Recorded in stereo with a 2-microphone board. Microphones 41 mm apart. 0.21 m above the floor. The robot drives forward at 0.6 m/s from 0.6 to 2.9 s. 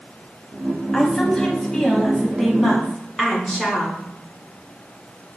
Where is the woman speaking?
20° left (ahead or behind), 1.0 m; by 4.0 s 15° left (ahead or behind), 1.6 m.